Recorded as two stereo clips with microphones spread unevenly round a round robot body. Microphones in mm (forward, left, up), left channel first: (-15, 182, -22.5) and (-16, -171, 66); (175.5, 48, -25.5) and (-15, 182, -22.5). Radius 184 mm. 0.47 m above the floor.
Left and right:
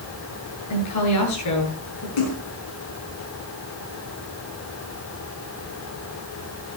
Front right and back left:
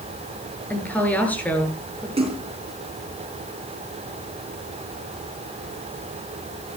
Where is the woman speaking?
50° left, 7.5 m.